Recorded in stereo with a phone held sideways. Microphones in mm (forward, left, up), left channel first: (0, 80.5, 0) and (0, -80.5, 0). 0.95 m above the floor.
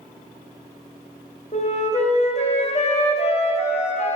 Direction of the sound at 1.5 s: 45° left (ahead or behind).